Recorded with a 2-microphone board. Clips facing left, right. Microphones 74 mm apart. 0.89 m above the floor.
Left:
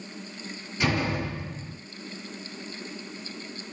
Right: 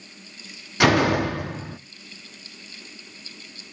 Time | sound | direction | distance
0.8 | a door slam | 80° right | 0.9 m